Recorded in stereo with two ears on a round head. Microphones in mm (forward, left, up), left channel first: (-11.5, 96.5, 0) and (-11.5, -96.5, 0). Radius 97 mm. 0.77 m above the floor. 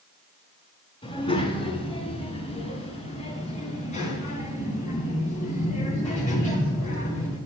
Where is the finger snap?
No finger snap in this recording.